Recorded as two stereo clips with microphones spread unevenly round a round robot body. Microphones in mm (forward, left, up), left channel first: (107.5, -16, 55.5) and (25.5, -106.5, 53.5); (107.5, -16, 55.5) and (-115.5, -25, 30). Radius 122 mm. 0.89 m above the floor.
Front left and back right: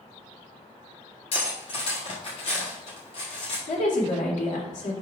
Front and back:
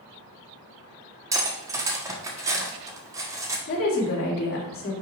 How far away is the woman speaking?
About 2.5 m.